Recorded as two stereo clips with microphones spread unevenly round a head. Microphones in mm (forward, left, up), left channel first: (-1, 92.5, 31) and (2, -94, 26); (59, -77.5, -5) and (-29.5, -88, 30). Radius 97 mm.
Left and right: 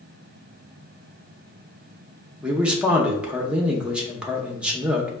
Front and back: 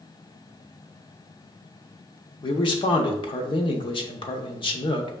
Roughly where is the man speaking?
Ahead.